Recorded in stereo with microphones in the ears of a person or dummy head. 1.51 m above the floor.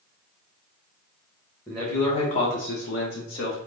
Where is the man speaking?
Centre (ahead or behind), 0.8 m; by 3.6 s 75° left (ahead or behind), 1.3 m.